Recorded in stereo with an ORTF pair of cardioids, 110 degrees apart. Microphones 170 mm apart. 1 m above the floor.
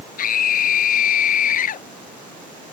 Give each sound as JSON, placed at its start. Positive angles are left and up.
{"t": 0.2, "sound": "a scream", "azimuth_deg": 55}